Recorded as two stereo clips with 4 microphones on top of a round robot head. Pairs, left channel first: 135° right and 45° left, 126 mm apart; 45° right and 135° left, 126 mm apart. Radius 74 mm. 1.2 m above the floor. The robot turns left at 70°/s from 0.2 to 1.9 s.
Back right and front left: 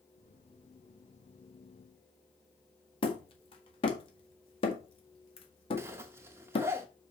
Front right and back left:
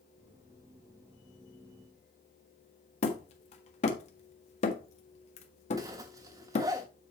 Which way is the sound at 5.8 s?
100° left.